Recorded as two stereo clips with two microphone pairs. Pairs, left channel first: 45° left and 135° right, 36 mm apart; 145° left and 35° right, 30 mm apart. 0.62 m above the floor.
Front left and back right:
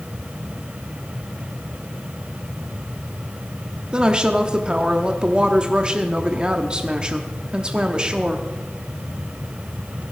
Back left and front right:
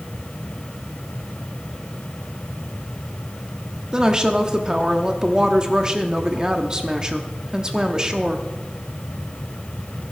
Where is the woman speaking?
85° right, 0.9 m.